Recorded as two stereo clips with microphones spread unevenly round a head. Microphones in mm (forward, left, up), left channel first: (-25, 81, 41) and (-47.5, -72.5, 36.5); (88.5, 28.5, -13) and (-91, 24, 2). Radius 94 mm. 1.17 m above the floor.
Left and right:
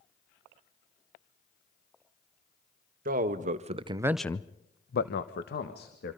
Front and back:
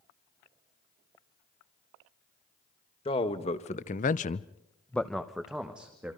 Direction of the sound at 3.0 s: 60° right.